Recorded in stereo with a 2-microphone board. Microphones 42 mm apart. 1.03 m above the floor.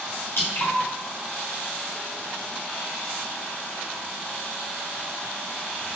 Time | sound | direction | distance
0.4 | dripping | 70° left (ahead or behind) | 1.6 m